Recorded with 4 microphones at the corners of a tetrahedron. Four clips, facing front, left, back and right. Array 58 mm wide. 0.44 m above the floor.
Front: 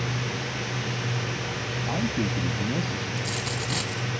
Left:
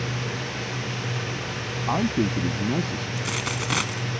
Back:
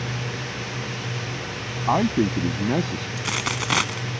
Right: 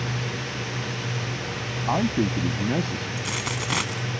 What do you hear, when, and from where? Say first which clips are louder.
1.9 s a man speaking: even, back 9 dB; straight behind
3.2 s a dropped coin: left 2 dB, back 4 dB; 175° left